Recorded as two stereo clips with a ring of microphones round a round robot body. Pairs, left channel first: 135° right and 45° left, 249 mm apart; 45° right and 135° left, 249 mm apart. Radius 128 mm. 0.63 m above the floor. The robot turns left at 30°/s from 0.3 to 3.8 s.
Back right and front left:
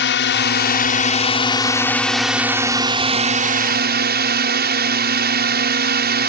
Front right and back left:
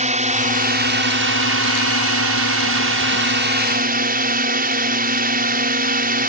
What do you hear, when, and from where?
0.0 s a drone: 170° right; by 6.3 s 85° left